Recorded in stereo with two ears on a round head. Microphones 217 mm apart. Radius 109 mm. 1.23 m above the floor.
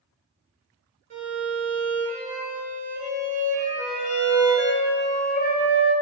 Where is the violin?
35° right (ahead or behind), 0.7 m.